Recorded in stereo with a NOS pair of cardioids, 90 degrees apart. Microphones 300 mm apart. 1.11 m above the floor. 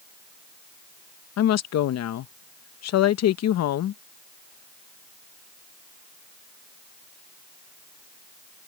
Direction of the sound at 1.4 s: 60° left.